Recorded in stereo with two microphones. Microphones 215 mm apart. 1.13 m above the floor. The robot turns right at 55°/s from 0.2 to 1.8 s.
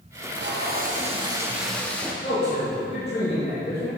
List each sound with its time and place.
0.1 s tape being pulled: 80° right, 0.8 m; by 2.1 s 5° left, 0.8 m
2.2 s a man speaking: 50° left (ahead or behind), 1.9 m